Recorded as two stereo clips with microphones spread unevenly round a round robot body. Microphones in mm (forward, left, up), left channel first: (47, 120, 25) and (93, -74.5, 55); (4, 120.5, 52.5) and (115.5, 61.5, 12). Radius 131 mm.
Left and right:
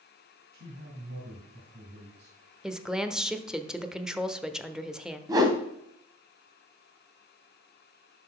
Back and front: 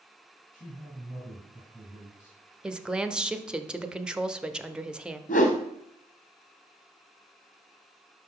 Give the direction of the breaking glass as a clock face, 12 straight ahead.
I don't hear breaking glass.